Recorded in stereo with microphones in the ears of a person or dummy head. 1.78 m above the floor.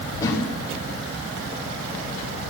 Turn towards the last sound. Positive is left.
turn(degrees=20)  # may be behind; listen again after turning